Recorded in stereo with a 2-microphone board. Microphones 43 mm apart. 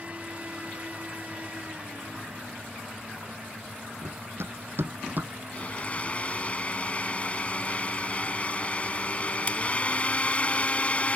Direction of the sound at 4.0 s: 65° right (ahead or behind).